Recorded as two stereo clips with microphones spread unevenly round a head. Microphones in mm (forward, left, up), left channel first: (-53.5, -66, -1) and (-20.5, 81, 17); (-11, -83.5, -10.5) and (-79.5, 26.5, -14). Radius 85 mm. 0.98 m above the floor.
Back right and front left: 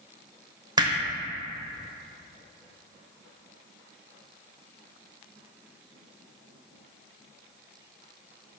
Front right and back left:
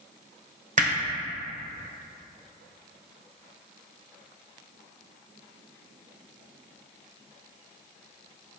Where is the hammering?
135° left, 1.2 m.